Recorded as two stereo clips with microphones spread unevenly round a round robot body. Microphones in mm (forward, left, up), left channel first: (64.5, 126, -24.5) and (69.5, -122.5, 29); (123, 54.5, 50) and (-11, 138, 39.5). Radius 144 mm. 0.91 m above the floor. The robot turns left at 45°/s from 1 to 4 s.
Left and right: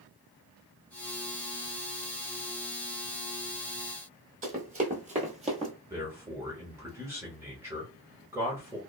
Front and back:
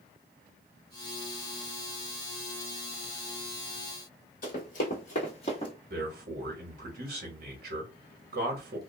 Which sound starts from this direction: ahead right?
Running footsteps, at 4.4 s.